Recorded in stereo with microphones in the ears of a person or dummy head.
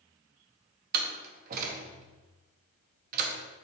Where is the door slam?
50° right (ahead or behind), 0.9 m.